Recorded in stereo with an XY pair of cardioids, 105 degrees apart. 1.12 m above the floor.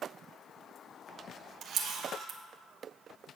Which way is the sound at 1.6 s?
70° right.